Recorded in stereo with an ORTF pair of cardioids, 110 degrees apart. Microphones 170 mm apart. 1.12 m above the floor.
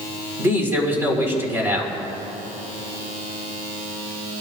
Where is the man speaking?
15° right, 4.5 m.